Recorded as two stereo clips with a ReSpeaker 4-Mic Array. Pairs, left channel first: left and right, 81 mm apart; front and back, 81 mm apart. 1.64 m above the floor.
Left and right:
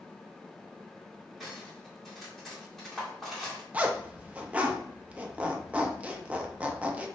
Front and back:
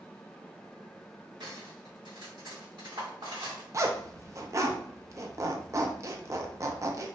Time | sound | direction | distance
1.4 | cutlery clinking | straight behind | 1.9 m
3.7 | a zipper | 155° right | 0.5 m